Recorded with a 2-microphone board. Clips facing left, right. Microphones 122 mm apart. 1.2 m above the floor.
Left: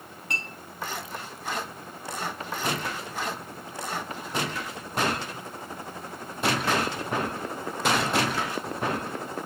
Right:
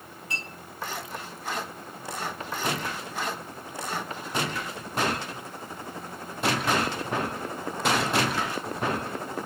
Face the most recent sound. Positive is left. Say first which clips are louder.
# left 2 dB
turn(degrees=65)  # may be behind; listen again after turning